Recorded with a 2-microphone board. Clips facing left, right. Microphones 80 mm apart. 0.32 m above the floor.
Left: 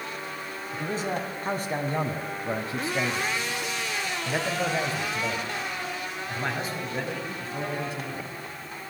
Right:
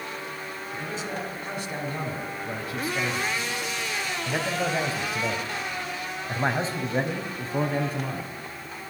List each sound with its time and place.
0.7 s a man speaking: 50° left (ahead or behind), 4 m; by 8.3 s 50° right (ahead or behind), 3.5 m